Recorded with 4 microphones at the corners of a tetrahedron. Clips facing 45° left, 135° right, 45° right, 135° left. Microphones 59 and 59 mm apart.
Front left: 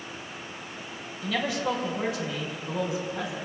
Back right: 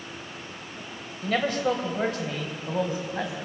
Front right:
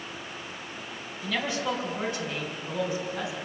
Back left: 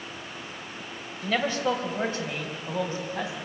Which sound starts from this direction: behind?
A man speaking, at 1.2 s.